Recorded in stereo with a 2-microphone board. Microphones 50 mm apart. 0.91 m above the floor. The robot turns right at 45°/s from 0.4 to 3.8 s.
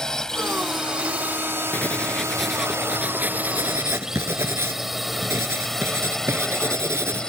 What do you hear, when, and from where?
0.0 s a drone: 15° left (ahead or behind)
1.7 s writing: 145° left; by 7.3 s 120° right